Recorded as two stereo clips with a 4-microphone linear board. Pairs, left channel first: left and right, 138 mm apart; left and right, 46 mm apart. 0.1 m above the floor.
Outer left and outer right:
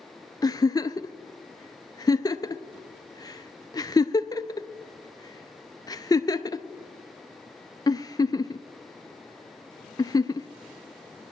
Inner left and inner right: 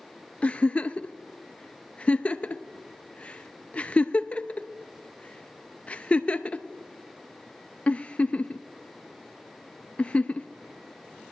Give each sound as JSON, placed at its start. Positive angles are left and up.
{"t": 0.4, "sound": "a giggle", "side_deg": 30, "distance_m": 0.5}